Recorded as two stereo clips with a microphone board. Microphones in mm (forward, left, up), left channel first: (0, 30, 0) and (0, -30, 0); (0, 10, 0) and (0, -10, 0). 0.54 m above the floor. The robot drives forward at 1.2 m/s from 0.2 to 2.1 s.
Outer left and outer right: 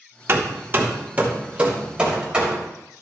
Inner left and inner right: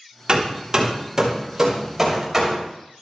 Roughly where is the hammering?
Right.